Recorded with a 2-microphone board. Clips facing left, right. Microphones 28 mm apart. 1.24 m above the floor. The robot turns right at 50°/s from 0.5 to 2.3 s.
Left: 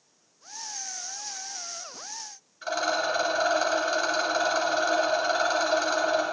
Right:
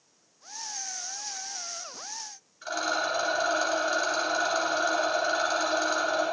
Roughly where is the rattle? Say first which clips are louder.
Left 2 dB; centre.